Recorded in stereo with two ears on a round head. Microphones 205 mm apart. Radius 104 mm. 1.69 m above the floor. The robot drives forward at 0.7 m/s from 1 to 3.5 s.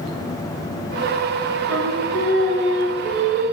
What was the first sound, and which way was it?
Singing, 65° right (ahead or behind).